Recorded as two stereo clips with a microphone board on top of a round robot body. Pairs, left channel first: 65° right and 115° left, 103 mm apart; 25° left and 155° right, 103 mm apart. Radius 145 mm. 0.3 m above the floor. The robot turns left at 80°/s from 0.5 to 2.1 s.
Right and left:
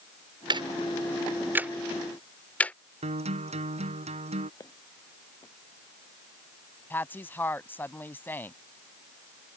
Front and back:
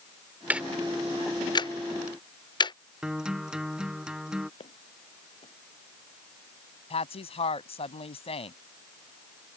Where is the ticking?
130° left; by 2.8 s 5° left.